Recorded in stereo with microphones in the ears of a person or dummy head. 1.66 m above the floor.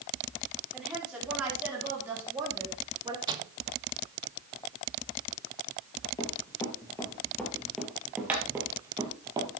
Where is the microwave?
25° right (ahead or behind), 1.4 m.